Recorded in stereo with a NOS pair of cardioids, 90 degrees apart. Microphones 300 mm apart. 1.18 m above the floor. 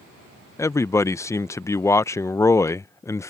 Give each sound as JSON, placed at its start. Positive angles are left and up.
{"t": 0.6, "sound": "a man speaking", "azimuth_deg": 10}